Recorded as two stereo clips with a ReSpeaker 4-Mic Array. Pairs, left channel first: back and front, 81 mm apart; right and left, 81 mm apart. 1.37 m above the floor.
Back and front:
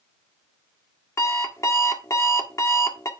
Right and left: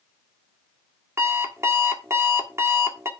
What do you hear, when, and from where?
1.2 s an alarm clock: 140° left, 1.4 m